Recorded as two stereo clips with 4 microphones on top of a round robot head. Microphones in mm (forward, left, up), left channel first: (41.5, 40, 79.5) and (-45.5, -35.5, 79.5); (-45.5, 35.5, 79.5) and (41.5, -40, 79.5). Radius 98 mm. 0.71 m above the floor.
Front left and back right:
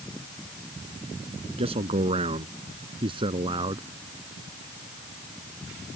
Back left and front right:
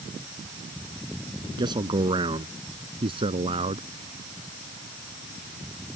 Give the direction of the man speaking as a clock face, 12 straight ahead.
3 o'clock.